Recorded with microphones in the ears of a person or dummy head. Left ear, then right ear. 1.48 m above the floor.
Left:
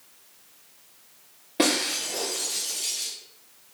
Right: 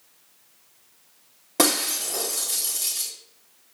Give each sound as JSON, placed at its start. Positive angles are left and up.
{"t": 1.6, "sound": "breaking glass", "side_deg": -45, "distance_m": 2.5}